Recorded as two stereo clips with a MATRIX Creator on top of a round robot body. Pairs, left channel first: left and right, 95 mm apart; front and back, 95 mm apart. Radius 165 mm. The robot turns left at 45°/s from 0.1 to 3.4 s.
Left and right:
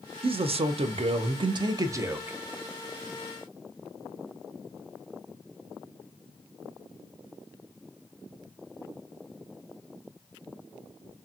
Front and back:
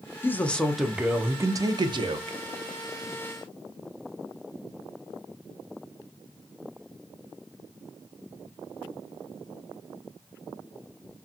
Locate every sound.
0.2 s a man speaking: 65° right, 0.5 m; by 2.4 s 165° right, 0.5 m